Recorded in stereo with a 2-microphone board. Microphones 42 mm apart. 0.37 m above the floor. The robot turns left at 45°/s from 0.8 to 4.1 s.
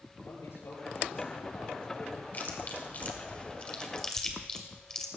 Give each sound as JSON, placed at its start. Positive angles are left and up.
{"t": 0.2, "sound": "a man speaking", "azimuth_deg": 95, "distance_m": 7.5}
{"t": 2.3, "sound": "chewing", "side_deg": 45, "distance_m": 1.9}